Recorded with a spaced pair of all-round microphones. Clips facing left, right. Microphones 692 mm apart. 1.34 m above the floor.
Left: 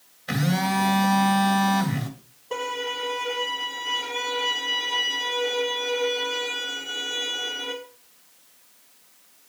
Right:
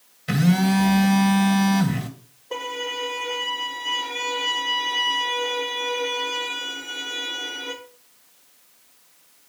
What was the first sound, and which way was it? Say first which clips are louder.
A phone buzzing: right 6 dB; 60° right (ahead or behind).